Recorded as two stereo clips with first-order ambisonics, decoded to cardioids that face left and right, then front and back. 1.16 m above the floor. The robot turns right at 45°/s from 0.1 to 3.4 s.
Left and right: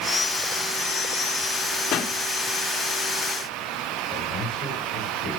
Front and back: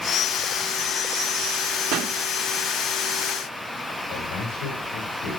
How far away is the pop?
About 1.7 m.